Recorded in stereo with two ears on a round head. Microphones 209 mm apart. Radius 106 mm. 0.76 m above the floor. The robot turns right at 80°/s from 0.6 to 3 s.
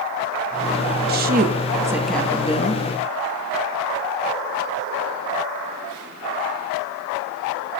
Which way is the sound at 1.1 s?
80° right.